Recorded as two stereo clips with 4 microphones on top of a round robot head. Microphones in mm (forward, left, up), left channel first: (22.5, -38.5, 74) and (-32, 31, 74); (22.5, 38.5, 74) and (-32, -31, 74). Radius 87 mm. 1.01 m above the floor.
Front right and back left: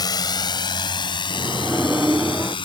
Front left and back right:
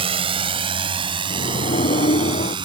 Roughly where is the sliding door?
Ahead left.